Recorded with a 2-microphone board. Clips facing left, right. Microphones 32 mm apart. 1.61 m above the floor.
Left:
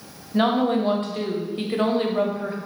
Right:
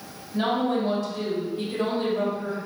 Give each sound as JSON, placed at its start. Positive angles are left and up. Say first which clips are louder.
{"t": 0.3, "sound": "a woman speaking", "louder": "left 4 dB", "side_deg": 50, "distance_m": 0.7}